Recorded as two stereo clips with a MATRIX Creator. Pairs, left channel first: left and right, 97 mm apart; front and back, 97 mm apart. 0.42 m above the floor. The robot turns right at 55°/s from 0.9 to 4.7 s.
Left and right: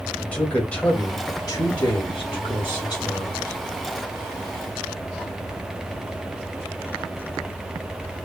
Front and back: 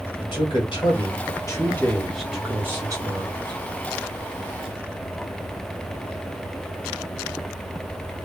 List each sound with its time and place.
0.2 s a man speaking: 15° left, 2.5 m; by 3.6 s 165° left, 2.5 m